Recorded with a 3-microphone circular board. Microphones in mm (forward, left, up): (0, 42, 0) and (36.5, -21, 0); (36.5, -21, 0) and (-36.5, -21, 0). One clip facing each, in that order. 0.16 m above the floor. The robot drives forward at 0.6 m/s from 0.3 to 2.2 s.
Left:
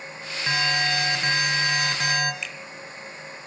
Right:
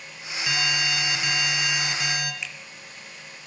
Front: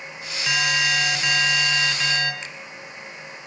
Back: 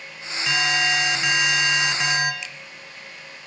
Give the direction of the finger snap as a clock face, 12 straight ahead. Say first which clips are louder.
Left 1 dB, front 1 dB; 11 o'clock.